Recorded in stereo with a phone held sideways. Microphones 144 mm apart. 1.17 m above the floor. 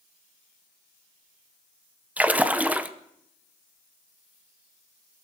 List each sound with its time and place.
2.2 s a splash: 10° right (ahead or behind), 0.5 m